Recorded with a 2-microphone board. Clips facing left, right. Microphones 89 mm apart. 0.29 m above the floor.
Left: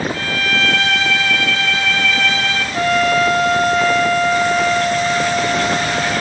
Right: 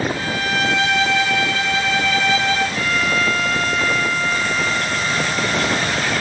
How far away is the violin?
About 4.5 m.